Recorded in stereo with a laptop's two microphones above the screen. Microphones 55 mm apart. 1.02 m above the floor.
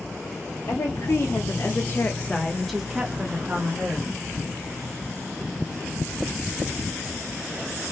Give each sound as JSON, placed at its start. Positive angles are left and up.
{"t": 0.7, "sound": "a woman speaking", "side_deg": 60, "distance_m": 1.4}